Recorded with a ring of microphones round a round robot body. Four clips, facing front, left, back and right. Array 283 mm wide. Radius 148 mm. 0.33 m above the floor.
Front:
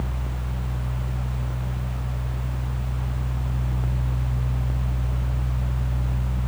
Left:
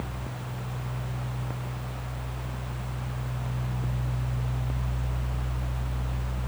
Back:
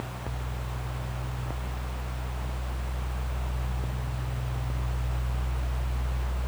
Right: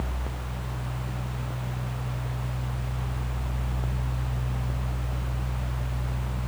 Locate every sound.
Only background noise.